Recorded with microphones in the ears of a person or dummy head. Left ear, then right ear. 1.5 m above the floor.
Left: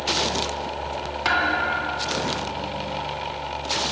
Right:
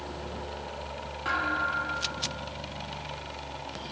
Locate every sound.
1.2 s a thud: 40° left (ahead or behind), 1.3 m